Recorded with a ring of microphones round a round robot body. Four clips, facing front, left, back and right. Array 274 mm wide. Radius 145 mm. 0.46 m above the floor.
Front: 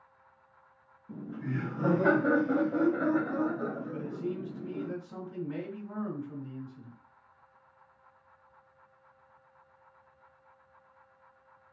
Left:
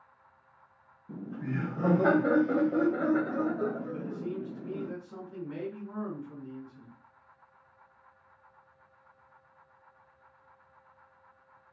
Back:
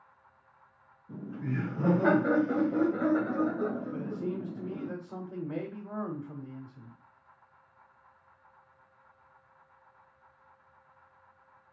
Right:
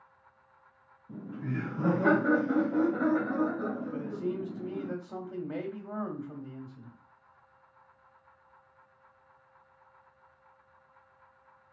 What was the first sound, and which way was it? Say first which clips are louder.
Laughter: left 1 dB, back 1 dB; 90° left.